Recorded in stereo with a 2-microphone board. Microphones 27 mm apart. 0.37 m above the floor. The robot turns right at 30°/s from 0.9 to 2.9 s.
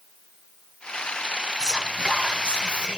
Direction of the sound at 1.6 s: 145° right.